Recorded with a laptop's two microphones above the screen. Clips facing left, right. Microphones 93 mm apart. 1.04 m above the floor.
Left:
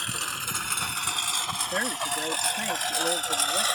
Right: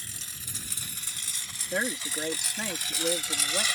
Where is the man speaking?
5° right (ahead or behind).